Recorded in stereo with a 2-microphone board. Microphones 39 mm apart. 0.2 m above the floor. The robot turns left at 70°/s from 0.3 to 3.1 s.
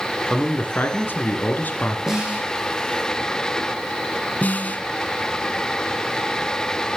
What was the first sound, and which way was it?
A man speaking, 150° left.